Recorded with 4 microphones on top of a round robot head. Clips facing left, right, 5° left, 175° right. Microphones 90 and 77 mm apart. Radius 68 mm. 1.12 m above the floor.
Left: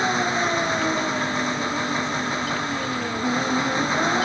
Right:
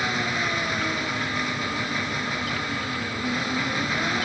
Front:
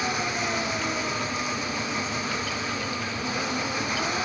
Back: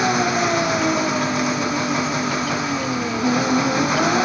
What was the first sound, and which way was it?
An engine running, 165° left.